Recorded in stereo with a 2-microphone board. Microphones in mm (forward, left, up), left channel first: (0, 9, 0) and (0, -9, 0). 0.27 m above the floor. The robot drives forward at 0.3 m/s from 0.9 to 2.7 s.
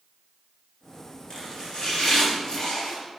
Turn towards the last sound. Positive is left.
turn(degrees=35)  # may be behind; listen again after turning